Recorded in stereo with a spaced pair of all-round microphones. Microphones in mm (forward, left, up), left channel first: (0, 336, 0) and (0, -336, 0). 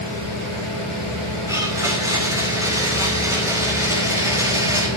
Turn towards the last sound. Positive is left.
turn(degrees=-5)  # may be behind; listen again after turning